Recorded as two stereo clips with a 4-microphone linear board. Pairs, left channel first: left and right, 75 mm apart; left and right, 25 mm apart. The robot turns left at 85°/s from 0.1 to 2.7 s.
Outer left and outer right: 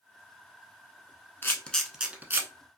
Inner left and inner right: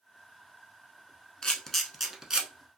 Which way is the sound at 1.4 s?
30° left (ahead or behind).